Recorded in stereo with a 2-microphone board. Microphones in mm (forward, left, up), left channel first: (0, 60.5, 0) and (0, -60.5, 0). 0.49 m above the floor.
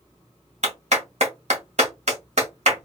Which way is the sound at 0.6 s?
70° right (ahead or behind).